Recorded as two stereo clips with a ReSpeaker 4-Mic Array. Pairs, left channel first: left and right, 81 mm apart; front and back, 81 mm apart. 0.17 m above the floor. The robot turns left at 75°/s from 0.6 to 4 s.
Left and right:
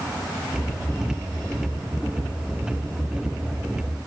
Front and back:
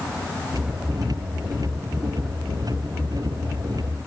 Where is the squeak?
I don't hear a squeak.